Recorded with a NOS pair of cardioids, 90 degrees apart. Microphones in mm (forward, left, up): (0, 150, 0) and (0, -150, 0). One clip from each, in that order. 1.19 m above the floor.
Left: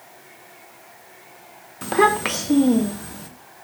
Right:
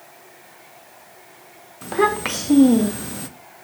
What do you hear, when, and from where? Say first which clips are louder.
1.8 s a child speaking: left 2 dB; 25° left, 0.8 m; by 3.3 s 40° right, 0.8 m